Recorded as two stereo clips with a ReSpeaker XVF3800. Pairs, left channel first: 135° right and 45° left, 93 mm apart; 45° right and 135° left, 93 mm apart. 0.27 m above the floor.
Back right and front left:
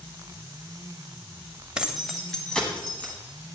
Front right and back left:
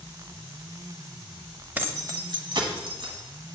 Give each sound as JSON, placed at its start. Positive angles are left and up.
{"t": 1.8, "sound": "keys jangling", "azimuth_deg": 110, "distance_m": 0.6}